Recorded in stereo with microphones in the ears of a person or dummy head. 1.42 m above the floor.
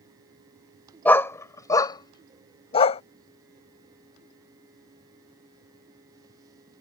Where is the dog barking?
10° left (ahead or behind); by 3.0 s 40° left (ahead or behind).